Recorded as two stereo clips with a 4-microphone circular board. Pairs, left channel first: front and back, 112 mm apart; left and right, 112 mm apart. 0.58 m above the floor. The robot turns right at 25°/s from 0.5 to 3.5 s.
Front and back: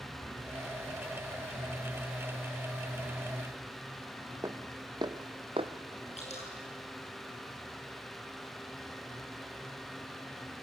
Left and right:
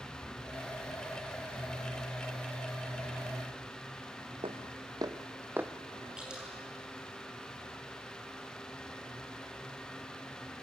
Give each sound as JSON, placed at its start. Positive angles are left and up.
{"t": 4.4, "sound": "footsteps", "azimuth_deg": -120, "distance_m": 1.3}
{"t": 6.2, "sound": "dripping", "azimuth_deg": -10, "distance_m": 7.5}